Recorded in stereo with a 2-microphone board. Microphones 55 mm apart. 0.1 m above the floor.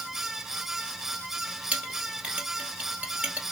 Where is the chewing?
I don't hear chewing.